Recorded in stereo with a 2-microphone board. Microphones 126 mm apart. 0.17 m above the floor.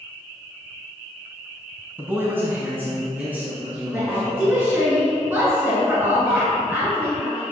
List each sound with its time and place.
2.0 s a man speaking: 15° right (ahead or behind), 1.0 m; by 4.9 s 10° right (ahead or behind), 3.5 m
3.9 s a woman speaking: 15° right (ahead or behind), 2.5 m